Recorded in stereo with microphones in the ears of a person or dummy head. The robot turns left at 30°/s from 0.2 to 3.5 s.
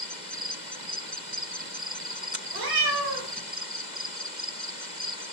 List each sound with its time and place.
2.5 s a cat meowing: 60° right (ahead or behind), 1.0 m; by 3.4 s 70° right (ahead or behind), 1.0 m